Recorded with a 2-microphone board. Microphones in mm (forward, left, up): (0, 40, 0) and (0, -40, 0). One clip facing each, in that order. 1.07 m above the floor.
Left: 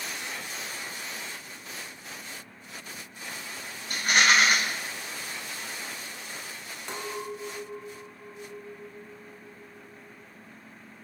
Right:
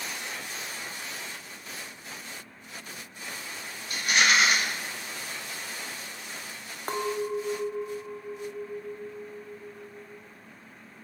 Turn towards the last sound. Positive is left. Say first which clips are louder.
# right 7 dB
turn(degrees=-45)  # may be behind; listen again after turning